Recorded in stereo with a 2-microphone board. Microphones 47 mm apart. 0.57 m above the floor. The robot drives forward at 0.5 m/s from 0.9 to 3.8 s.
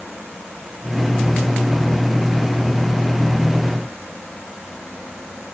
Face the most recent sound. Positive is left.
No sound to turn to.